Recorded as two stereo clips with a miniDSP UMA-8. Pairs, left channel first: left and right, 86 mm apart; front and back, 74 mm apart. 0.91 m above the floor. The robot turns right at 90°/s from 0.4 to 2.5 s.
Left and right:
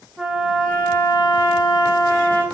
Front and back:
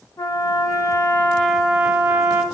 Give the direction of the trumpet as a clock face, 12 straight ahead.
12 o'clock.